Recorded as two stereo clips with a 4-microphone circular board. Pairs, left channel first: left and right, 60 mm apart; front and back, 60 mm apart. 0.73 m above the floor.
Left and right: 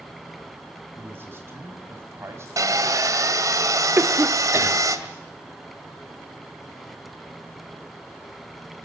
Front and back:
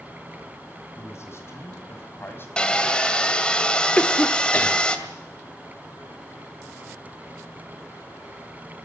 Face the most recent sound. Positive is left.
turn(degrees=-55)